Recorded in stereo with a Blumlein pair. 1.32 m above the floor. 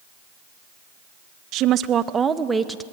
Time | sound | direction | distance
1.5 | a woman speaking | 40° right | 0.9 m